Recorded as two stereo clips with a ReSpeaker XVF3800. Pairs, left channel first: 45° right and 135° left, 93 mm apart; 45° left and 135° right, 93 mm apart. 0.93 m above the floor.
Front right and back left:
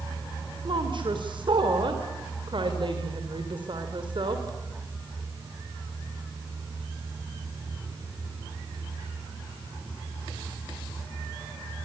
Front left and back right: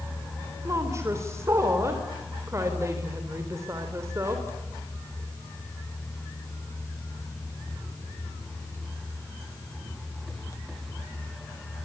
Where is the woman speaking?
165° left, 3.5 m.